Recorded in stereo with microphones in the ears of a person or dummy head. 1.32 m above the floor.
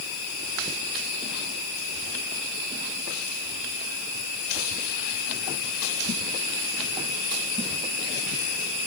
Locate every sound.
Only background noise.